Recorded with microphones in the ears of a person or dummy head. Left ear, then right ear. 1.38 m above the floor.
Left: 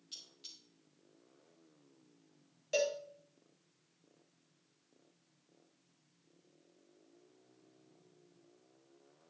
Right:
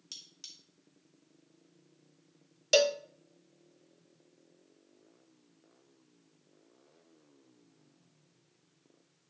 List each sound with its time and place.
0.1 s cutlery clinking: 40° right (ahead or behind), 1.4 m
2.7 s a cowbell: 50° right (ahead or behind), 0.5 m